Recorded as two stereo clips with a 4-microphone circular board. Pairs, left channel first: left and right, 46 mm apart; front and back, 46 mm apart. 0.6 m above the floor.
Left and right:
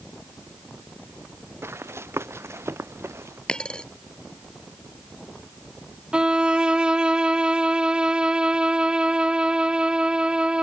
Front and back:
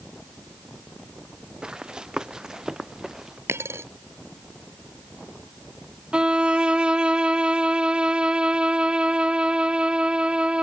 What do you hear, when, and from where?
1.6 s running footsteps: 110° right; by 3.4 s 100° right
3.5 s a dropped coin: 165° left
6.1 s a violin: 135° right